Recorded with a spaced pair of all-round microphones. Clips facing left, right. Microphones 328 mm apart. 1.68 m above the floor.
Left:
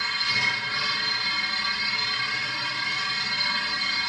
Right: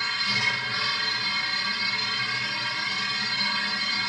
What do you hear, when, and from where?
0.0 s a machine running: 35° right (ahead or behind), 1.7 m